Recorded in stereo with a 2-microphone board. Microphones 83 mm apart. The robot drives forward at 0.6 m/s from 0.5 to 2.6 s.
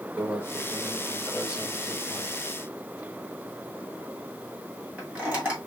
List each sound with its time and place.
0.2 s a microwave: 10° right (ahead or behind), 3.5 m; by 5.6 s 15° right (ahead or behind), 2 m